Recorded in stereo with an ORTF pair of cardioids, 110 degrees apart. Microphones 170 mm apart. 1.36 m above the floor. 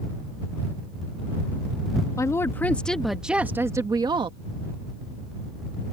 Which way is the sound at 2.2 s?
20° left.